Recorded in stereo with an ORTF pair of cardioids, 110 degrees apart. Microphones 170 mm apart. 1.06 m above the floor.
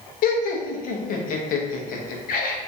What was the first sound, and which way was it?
Laughter, 60° left.